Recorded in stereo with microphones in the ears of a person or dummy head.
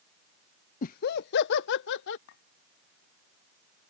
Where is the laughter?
40° left (ahead or behind); by 2.2 s 65° left (ahead or behind).